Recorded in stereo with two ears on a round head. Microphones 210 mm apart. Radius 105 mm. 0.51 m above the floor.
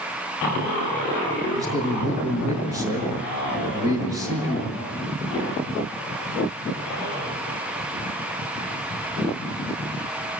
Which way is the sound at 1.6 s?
15° right (ahead or behind).